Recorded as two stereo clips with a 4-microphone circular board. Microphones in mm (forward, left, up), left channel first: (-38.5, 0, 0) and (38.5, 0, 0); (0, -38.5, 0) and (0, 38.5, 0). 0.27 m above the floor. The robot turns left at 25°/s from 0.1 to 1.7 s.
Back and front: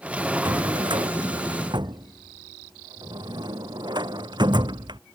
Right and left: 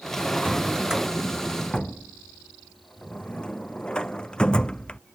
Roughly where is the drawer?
Ahead.